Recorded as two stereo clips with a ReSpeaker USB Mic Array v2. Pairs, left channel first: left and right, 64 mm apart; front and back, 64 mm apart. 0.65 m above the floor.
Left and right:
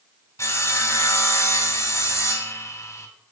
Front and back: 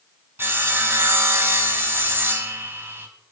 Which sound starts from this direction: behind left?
Sawing, at 0.4 s.